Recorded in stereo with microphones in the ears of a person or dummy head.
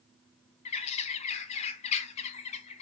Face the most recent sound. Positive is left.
turn(degrees=35)  # may be behind; listen again after turning